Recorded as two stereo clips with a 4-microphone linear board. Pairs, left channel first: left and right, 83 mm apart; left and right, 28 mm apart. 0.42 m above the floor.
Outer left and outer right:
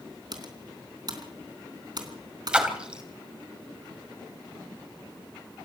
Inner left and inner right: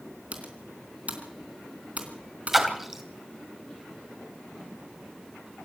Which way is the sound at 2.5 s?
10° right (ahead or behind).